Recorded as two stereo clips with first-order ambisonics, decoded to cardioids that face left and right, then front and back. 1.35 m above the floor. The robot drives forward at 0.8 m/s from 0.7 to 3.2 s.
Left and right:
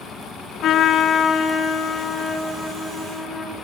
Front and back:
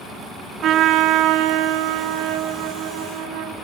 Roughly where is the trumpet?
Behind left.